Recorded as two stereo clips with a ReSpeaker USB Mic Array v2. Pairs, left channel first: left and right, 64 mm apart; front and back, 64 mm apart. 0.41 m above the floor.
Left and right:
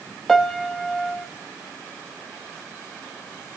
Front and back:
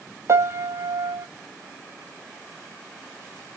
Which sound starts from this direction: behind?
A piano, at 0.3 s.